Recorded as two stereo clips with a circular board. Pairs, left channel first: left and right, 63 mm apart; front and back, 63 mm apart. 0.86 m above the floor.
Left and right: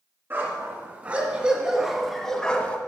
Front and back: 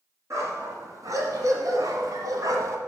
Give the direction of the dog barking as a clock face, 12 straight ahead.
5 o'clock.